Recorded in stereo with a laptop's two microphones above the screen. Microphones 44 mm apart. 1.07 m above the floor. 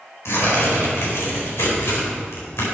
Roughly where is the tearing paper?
Left.